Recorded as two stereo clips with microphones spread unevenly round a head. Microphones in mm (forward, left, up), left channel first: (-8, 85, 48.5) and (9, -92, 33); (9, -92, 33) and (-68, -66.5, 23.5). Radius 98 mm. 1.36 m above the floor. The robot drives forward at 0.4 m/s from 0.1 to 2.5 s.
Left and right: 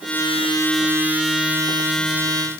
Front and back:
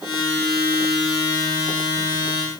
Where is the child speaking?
No child speaking in this recording.